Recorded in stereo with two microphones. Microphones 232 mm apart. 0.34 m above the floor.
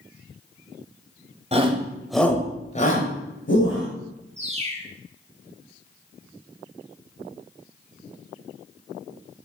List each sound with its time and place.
1.5 s a shout: 25° right (ahead or behind), 1.6 m; by 3.9 s 60° left (ahead or behind), 2.5 m
4.4 s a bird: 30° right (ahead or behind), 1.4 m